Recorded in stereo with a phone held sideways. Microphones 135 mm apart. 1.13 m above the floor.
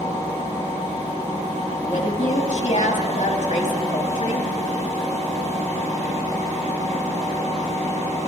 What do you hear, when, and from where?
0.0 s a machine running: 65° right (ahead or behind), 5.5 m
1.8 s a woman speaking: 55° left (ahead or behind), 2 m